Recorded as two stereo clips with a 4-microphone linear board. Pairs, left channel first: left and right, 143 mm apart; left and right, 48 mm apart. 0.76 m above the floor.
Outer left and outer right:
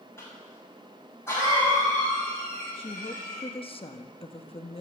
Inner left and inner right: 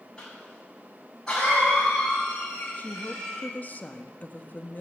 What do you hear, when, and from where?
0.2 s a cough: 15° left (ahead or behind), 5.5 m
2.8 s a woman speaking: 40° left (ahead or behind), 0.9 m